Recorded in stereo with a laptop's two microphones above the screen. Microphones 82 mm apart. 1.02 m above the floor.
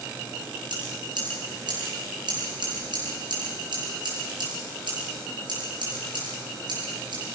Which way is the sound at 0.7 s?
65° right (ahead or behind).